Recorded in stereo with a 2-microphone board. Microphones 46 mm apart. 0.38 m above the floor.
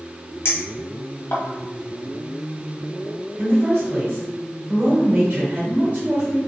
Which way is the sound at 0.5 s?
65° left (ahead or behind).